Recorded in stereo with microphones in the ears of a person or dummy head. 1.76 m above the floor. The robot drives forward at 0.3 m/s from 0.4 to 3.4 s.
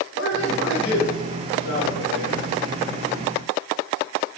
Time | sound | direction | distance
0.1 | a man speaking | 75° left (ahead or behind) | 2.0 m